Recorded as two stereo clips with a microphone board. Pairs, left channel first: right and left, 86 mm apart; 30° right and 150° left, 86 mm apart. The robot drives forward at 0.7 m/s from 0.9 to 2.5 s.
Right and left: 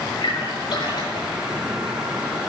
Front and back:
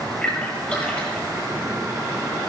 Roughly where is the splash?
Right.